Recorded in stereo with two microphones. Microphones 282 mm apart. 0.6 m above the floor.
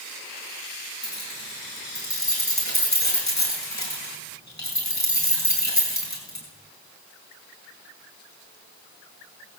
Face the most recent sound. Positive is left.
turn(degrees=70)  # may be behind; listen again after turning